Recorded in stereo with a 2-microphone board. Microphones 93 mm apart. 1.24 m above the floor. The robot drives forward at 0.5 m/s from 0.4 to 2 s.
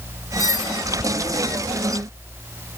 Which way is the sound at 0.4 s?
45° left (ahead or behind).